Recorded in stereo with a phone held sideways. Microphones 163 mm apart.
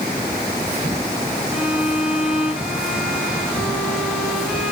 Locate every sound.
1.5 s a violin: 5° right (ahead or behind), 6.5 m